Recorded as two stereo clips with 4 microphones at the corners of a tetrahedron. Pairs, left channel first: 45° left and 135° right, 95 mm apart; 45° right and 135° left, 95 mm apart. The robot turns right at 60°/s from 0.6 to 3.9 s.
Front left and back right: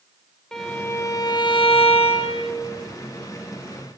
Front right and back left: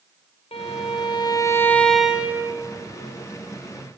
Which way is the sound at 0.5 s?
40° right.